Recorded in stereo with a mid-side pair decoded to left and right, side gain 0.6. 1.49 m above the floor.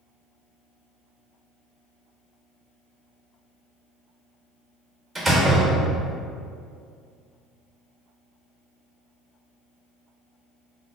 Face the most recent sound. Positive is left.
turn(degrees=-25)